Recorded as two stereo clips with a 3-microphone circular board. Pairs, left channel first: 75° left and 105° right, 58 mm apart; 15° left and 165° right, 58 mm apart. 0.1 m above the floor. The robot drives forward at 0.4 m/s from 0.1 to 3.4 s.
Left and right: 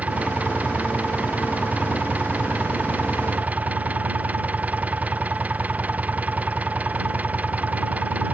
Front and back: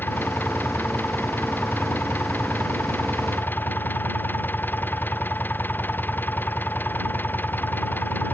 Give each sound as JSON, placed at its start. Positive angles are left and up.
{"t": 0.0, "sound": "an engine running", "azimuth_deg": -35}